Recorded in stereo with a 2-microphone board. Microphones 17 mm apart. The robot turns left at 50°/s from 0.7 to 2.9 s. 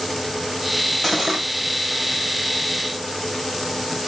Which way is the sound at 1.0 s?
10° left (ahead or behind).